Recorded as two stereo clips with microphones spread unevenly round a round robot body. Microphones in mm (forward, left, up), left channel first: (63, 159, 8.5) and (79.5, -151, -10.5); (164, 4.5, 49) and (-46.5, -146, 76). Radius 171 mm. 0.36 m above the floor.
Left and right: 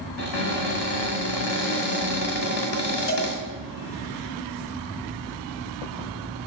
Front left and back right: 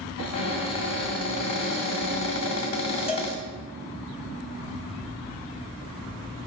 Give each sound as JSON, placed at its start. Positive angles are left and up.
{"t": 0.2, "sound": "a cupboard door", "azimuth_deg": 55, "distance_m": 2.0}
{"t": 3.1, "sound": "a cowbell", "azimuth_deg": 90, "distance_m": 1.3}